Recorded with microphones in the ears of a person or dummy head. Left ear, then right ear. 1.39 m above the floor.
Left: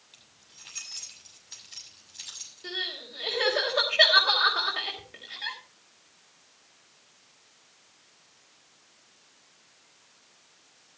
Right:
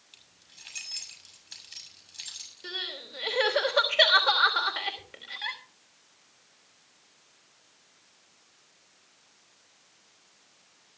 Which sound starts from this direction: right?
Crying, at 2.6 s.